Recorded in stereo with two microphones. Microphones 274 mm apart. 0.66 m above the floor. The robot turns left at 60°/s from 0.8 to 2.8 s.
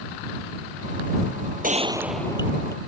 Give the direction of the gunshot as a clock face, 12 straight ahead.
5 o'clock.